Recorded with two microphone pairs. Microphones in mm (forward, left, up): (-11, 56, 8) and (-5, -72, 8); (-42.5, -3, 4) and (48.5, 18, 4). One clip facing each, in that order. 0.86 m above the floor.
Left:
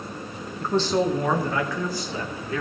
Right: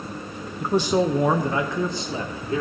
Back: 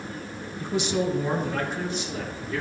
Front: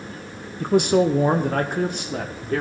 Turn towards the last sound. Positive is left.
turn(degrees=-25)